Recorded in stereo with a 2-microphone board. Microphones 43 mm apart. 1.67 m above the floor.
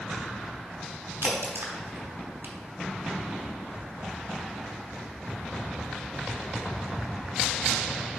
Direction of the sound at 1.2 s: 70° right (ahead or behind).